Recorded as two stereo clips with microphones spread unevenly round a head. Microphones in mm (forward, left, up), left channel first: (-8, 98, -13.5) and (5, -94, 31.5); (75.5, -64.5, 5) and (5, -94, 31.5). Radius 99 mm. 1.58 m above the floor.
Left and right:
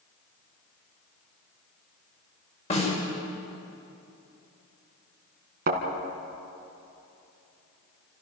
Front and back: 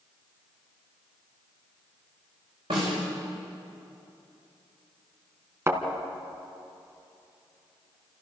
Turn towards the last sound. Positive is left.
turn(degrees=-115)